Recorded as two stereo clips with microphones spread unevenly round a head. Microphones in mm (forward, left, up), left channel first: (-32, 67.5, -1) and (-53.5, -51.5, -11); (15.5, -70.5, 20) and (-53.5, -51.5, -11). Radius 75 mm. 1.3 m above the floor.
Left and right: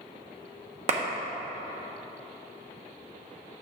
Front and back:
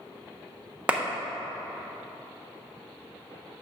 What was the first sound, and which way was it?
A clap, 125° right.